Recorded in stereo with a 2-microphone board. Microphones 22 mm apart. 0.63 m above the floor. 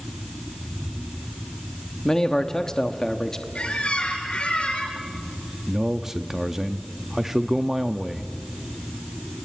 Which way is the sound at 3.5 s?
50° left (ahead or behind).